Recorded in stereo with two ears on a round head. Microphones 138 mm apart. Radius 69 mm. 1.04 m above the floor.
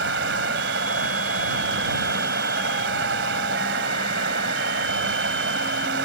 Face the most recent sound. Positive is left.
turn(degrees=-85)